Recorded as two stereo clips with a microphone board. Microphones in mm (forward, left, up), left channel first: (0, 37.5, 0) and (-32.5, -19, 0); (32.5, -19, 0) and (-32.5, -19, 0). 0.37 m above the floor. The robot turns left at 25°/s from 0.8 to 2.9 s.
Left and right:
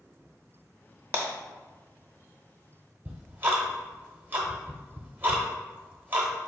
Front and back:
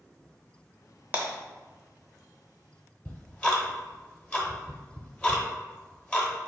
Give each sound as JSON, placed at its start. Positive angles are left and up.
{"t": 1.1, "sound": "breaking glass", "azimuth_deg": -145, "distance_m": 0.8}
{"t": 3.0, "sound": "ticking", "azimuth_deg": -70, "distance_m": 0.7}